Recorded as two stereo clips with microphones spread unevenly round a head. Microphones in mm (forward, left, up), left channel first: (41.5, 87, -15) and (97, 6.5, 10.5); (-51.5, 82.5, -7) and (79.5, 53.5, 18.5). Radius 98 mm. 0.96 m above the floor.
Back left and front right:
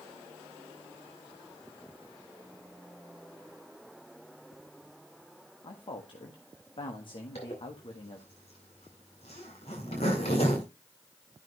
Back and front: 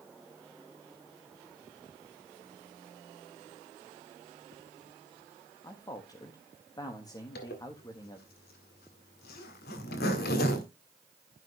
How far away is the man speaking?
About 1.5 m.